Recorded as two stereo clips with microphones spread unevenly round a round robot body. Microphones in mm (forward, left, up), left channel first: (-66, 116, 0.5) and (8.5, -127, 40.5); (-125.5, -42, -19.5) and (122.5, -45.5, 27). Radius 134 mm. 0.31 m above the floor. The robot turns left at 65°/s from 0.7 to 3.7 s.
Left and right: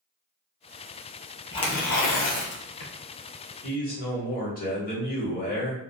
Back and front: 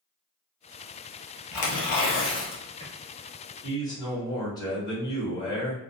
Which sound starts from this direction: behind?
Tearing paper, at 1.5 s.